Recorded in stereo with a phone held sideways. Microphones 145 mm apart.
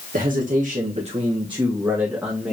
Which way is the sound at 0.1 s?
70° right (ahead or behind).